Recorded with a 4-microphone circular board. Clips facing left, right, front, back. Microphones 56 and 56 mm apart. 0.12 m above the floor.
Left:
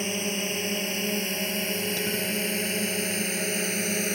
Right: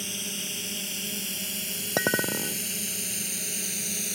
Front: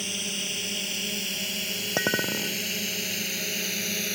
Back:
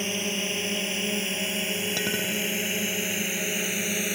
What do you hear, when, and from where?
0.0 s a drone: 125° left; by 4.1 s 110° left
2.0 s a clink: 60° right